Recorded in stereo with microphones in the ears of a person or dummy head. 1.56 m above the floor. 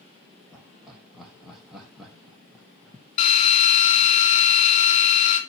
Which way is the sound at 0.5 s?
5° right (ahead or behind).